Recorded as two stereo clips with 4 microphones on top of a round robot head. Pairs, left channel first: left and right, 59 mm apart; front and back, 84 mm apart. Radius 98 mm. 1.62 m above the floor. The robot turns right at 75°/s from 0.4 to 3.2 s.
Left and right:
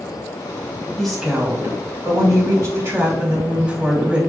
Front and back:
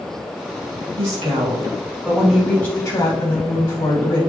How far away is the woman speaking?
About 3 m.